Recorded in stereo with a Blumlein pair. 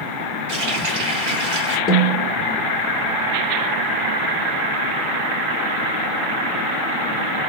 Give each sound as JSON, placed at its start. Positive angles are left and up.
{"t": 0.5, "sound": "a running tap", "azimuth_deg": -50, "distance_m": 1.2}
{"t": 1.9, "sound": "a snare drum", "azimuth_deg": 25, "distance_m": 0.8}